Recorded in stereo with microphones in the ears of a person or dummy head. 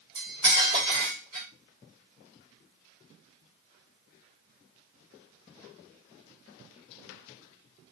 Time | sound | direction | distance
0.1 | cutlery clinking | 35° right (ahead or behind) | 1.4 m